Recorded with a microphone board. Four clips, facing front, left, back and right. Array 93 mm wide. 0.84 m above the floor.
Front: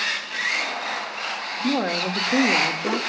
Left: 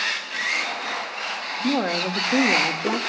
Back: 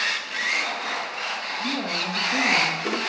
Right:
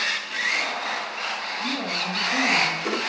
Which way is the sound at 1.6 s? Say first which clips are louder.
Left 8 dB, front 7 dB; 50° left.